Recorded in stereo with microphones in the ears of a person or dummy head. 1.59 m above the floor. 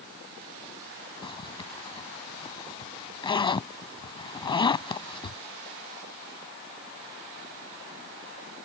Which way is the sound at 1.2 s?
25° left (ahead or behind).